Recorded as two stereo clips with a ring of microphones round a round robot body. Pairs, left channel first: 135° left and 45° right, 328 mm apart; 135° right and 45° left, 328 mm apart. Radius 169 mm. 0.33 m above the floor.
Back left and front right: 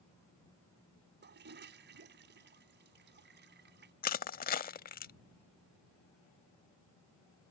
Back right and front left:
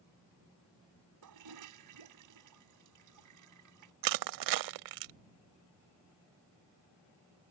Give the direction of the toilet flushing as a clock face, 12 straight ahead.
12 o'clock.